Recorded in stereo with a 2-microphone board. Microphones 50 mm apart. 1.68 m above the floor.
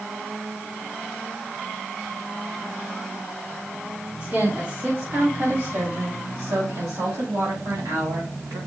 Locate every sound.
4.2 s a woman speaking: 40° right (ahead or behind), 3.5 m; by 8.6 s 85° right, 4 m